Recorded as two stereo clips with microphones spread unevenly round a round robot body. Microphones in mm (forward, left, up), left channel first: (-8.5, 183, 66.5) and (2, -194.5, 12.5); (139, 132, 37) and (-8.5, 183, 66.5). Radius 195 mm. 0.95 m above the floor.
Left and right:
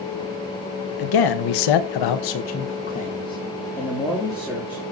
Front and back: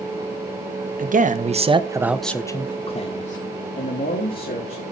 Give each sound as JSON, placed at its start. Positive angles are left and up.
{"t": 1.0, "sound": "a man speaking", "azimuth_deg": 125, "distance_m": 1.6}